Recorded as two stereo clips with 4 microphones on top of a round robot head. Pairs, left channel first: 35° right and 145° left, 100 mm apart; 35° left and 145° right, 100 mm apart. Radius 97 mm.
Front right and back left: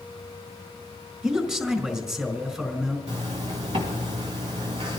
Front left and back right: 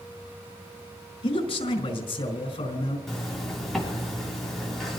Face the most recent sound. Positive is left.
turn(degrees=125)